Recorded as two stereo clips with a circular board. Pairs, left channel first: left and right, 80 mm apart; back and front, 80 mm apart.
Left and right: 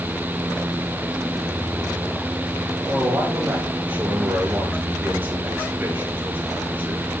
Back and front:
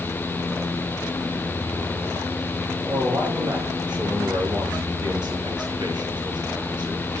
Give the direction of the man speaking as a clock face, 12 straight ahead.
1 o'clock.